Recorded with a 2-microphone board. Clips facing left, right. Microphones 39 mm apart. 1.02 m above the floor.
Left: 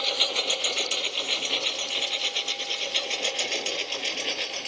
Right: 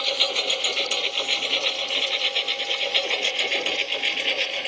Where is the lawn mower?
15° right (ahead or behind); by 4.7 s 35° right (ahead or behind).